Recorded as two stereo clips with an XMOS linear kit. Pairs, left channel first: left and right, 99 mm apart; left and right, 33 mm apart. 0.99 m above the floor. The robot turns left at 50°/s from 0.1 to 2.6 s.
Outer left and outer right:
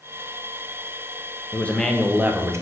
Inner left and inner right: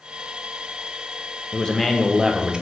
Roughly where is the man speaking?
Ahead.